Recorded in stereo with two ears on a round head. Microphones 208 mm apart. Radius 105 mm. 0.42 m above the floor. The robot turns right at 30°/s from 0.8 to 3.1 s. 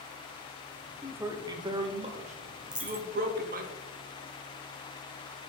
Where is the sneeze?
No sneeze in this recording.